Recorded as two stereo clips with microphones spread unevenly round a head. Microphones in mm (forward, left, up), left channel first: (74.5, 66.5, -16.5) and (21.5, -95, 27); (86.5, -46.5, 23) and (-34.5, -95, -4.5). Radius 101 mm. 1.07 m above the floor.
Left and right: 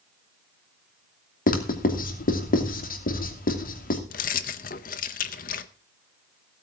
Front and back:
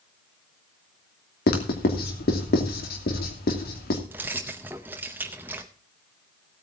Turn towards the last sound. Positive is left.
turn(degrees=120)